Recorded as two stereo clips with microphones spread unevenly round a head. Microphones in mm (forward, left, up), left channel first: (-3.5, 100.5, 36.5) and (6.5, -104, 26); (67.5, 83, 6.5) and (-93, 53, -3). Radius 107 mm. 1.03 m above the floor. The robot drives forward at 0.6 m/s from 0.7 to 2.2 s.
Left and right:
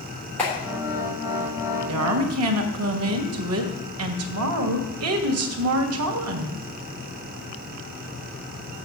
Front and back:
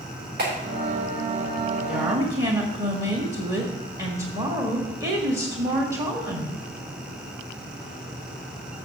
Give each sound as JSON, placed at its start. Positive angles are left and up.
{"t": 0.4, "sound": "a clap", "azimuth_deg": 175, "distance_m": 3.5}
{"t": 1.9, "sound": "a woman speaking", "azimuth_deg": -85, "distance_m": 1.2}